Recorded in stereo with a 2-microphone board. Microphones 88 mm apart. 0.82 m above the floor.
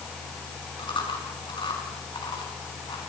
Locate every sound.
0.8 s chewing: 70° left (ahead or behind), 6.5 m